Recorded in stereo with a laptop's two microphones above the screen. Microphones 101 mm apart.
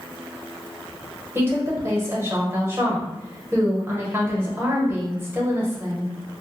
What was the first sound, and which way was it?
A woman speaking, 20° right (ahead or behind).